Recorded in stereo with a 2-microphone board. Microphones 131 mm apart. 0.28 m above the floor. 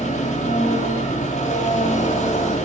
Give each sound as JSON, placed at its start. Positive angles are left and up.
{"t": 0.0, "sound": "an engine running", "side_deg": 60, "distance_m": 3.5}